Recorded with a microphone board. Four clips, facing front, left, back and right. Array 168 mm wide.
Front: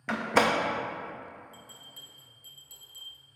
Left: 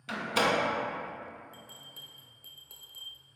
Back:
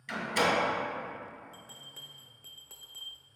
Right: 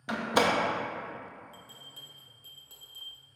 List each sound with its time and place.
0.1 s a door slam: 30° right, 0.6 m
1.5 s a bell: 165° left, 0.8 m